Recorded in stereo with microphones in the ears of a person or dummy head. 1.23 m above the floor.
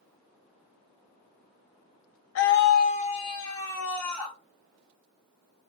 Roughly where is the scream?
Left.